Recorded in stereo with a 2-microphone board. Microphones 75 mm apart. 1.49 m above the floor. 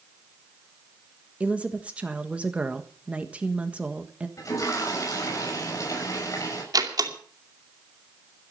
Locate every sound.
1.4 s a woman speaking: 15° right (ahead or behind), 1.4 m
4.4 s a toilet flushing: 45° left (ahead or behind), 6.5 m
6.7 s a door slam: 60° right (ahead or behind), 2.5 m